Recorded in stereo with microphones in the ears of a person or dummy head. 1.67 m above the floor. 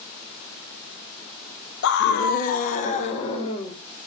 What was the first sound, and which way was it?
A scream, 65° left (ahead or behind).